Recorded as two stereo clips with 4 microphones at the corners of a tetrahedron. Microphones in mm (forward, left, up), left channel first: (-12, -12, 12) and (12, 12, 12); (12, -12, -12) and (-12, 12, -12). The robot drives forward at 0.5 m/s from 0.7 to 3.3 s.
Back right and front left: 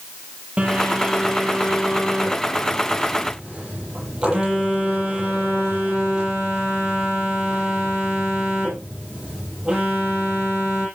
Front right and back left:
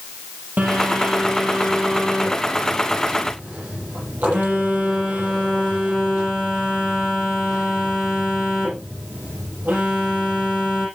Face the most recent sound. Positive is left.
turn(degrees=110)